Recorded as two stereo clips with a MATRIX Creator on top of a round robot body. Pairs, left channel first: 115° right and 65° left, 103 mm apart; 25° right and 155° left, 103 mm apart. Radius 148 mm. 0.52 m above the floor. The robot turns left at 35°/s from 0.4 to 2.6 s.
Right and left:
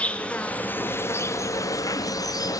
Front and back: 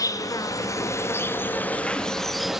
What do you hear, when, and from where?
0.0 s an insect: 40° right, 0.7 m; by 2.6 s 120° right, 0.7 m